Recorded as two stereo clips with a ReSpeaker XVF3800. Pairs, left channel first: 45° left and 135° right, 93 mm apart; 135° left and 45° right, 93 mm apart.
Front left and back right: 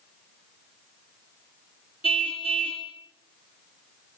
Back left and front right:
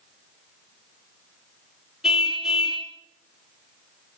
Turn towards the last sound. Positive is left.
turn(degrees=40)